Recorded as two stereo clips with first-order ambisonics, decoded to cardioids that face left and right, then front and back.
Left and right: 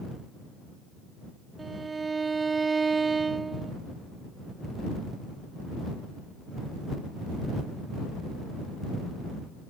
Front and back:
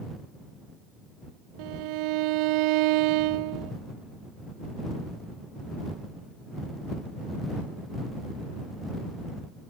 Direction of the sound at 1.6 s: 165° right.